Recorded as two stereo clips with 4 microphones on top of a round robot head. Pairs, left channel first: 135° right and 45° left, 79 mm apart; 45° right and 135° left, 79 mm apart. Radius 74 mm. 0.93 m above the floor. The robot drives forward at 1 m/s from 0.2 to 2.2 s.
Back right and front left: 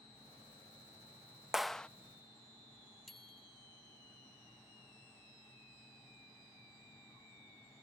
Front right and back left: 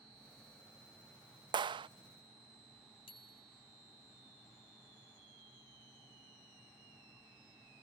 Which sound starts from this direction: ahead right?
A bicycle bell, at 3.1 s.